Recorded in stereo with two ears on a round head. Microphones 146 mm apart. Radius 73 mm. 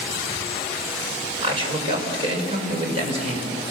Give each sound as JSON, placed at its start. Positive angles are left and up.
{"t": 1.4, "sound": "a man speaking", "side_deg": -30, "distance_m": 6.0}